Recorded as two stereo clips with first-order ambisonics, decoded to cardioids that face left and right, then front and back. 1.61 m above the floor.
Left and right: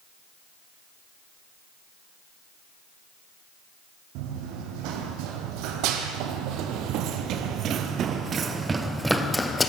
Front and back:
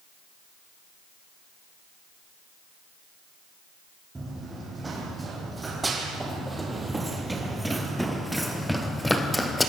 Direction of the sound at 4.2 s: 100° right.